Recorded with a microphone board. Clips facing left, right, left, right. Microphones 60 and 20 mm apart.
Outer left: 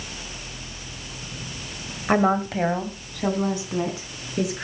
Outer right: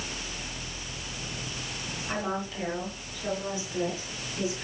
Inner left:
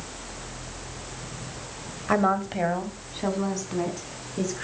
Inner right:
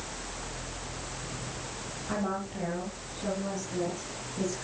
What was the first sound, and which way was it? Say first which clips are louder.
A woman speaking: outer left 12 dB, inner left 10 dB; 55° left (ahead or behind).